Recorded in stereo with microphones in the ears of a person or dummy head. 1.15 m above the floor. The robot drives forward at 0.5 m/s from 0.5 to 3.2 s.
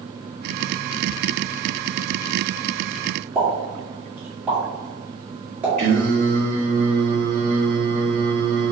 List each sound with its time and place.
3.4 s a pop: 10° right (ahead or behind), 1.7 m
5.8 s singing: 45° right (ahead or behind), 1.7 m